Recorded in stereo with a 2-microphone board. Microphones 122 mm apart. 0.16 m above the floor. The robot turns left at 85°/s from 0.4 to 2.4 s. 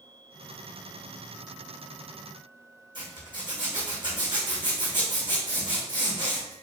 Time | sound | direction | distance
3.0 | a zipper | 40° right (ahead or behind) | 1.8 m